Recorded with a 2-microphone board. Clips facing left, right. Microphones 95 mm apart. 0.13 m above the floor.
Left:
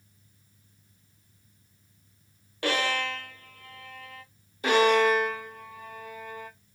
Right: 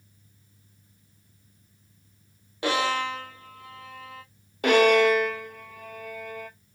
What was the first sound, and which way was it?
A violin, 15° right (ahead or behind).